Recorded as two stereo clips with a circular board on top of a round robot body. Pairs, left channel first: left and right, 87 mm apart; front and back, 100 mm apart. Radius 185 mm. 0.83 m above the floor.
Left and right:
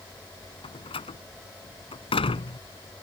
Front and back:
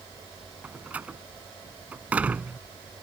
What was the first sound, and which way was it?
A door slam, 105° left.